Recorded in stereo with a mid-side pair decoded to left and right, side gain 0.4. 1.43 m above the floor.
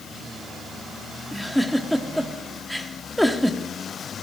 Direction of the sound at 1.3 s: Straight ahead.